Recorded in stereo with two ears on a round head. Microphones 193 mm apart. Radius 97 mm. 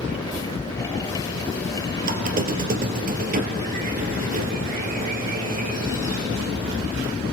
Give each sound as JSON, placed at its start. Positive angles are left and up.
{"t": 2.0, "sound": "a squeak", "side_deg": -40, "distance_m": 1.9}